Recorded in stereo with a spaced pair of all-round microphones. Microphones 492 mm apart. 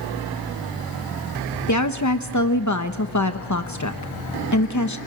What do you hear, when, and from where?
1.7 s a woman speaking: 35° left (ahead or behind), 0.9 m